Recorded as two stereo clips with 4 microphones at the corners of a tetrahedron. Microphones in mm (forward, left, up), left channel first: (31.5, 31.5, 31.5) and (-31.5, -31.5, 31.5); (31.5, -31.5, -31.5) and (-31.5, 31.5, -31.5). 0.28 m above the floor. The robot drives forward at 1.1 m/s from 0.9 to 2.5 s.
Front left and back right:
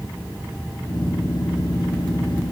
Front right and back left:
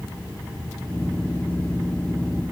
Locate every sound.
Only background noise.